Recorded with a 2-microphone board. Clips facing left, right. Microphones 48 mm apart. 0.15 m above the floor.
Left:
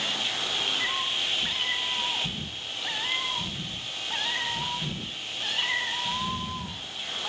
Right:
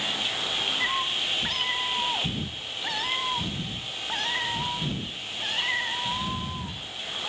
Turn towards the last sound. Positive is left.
turn(degrees=-30)  # may be behind; listen again after turning